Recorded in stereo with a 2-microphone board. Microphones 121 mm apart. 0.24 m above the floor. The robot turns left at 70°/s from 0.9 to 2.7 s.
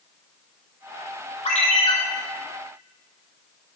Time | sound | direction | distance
1.4 | a ringtone | 80° left | 1.2 m